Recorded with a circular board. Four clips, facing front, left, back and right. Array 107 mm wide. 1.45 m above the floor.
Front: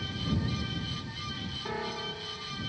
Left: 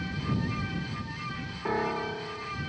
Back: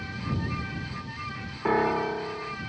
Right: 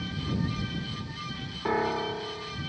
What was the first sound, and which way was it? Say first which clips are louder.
A piano: right 2 dB, back 13 dB; 170° right.